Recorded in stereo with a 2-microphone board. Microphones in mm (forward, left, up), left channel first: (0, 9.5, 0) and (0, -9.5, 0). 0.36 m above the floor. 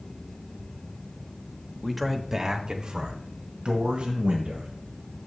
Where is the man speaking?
10° left (ahead or behind), 0.9 m; by 4.7 s 70° right (ahead or behind), 2.5 m.